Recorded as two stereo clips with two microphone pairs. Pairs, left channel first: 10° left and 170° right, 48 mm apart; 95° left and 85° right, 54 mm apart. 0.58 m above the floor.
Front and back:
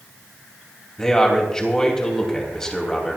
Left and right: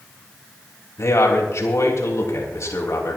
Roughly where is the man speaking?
Left.